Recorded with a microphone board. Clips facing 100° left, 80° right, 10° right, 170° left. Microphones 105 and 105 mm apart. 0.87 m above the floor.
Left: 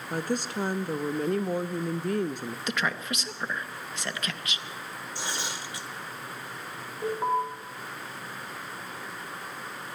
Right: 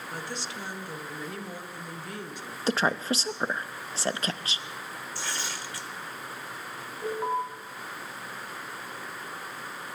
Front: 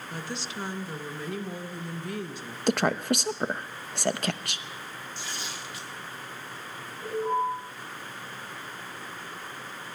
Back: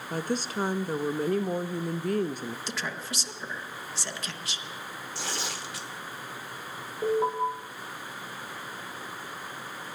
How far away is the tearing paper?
About 1.3 m.